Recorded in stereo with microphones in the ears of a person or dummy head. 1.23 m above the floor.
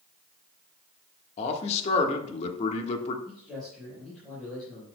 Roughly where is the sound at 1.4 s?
Left.